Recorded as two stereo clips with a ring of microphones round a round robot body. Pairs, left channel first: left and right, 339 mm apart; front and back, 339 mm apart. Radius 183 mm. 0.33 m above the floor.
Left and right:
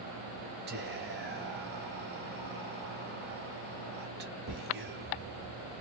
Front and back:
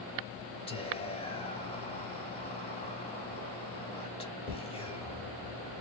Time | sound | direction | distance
0.7 | whispering | 60° right | 0.9 m